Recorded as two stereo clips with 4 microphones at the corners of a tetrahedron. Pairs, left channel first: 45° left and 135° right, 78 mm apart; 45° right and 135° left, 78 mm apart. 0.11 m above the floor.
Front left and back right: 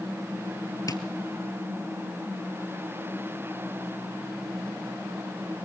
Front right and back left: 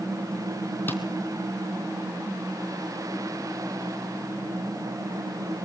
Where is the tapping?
15° left, 1.4 m.